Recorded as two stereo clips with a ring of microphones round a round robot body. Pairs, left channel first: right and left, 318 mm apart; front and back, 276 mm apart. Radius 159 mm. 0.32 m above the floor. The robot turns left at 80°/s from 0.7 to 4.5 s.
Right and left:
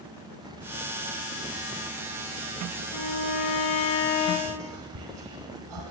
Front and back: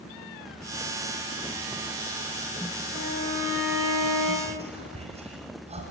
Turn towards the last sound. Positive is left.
turn(degrees=115)